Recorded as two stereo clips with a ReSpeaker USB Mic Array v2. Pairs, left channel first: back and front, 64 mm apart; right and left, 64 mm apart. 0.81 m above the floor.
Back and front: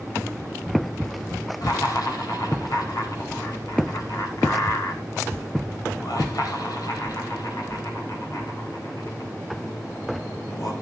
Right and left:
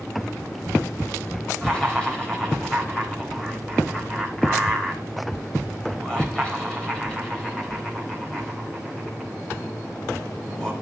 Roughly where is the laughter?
Behind.